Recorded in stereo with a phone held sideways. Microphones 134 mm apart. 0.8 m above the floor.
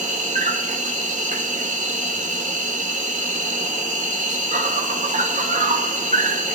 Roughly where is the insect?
Right.